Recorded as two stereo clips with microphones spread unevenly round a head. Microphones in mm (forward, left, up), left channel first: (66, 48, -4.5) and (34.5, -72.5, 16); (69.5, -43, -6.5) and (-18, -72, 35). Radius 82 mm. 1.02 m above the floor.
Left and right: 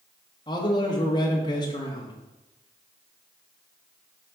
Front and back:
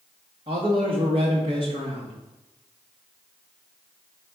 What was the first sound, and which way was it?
A man speaking, 135° left.